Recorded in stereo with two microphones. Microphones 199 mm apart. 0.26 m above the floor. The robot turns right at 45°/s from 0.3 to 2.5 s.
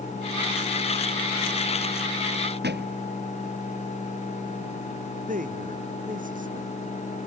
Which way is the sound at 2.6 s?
55° right (ahead or behind).